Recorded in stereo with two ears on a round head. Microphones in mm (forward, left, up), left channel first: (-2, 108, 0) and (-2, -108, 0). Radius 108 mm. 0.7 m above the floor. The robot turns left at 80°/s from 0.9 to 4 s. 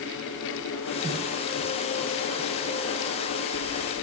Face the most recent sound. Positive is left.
No sound to turn to.